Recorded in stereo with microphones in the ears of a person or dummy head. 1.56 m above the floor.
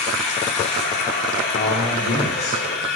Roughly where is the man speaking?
Left.